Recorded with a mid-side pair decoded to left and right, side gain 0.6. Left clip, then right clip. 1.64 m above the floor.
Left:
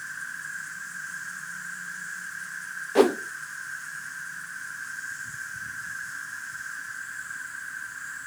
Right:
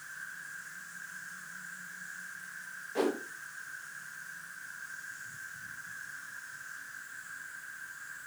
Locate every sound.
0.0 s an insect: 50° left, 1.0 m
3.0 s a whoosh: 55° left, 0.7 m